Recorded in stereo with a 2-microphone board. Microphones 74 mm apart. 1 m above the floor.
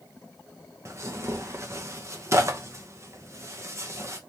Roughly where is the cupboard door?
I don't hear a cupboard door.